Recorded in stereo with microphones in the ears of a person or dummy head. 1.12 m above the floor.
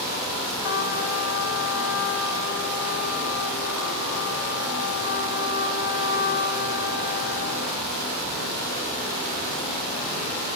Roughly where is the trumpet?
Left.